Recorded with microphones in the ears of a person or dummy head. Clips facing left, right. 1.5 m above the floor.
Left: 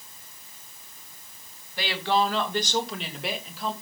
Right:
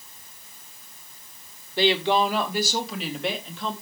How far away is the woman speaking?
About 1.8 m.